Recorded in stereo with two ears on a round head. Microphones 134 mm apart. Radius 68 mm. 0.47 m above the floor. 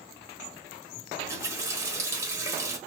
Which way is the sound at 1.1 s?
20° right (ahead or behind).